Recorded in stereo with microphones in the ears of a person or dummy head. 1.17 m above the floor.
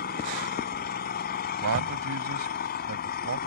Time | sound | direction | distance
0.0 | an engine running | 50° left (ahead or behind) | ?
1.6 | a man speaking | 75° right (ahead or behind) | ?